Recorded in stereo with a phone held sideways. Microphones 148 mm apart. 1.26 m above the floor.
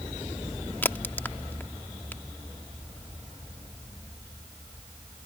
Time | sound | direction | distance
0.8 | a crack | 15° left (ahead or behind) | ?